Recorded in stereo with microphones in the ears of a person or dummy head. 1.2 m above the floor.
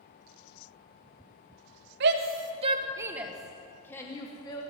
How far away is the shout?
About 1.4 m.